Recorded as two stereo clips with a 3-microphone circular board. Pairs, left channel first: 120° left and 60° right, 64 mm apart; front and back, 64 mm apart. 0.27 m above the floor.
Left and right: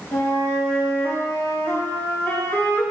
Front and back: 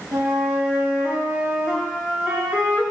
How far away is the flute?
About 0.7 m.